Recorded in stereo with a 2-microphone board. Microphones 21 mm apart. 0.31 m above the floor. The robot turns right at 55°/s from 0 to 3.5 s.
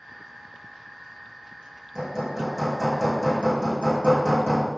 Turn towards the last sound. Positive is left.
turn(degrees=60)